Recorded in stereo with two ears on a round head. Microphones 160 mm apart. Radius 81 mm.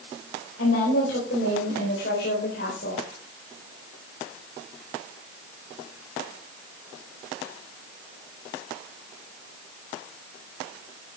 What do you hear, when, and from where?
0.6 s a woman speaking: 70° left (ahead or behind), 5 m; by 3.0 s 50° left (ahead or behind), 4 m